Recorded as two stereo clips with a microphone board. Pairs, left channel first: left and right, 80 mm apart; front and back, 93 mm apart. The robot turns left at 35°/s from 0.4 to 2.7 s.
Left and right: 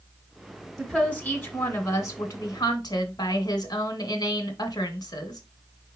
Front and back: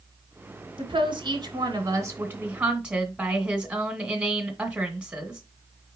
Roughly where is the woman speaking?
Behind.